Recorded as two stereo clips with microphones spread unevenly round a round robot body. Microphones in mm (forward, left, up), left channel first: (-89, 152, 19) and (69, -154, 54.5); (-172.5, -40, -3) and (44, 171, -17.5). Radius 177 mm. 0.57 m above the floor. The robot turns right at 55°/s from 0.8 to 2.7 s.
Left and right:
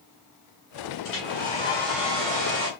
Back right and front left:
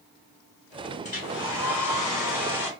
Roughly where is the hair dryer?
Behind left.